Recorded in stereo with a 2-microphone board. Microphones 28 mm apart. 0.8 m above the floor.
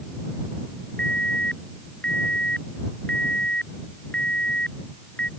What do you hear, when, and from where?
1.0 s an alarm: 40° left (ahead or behind)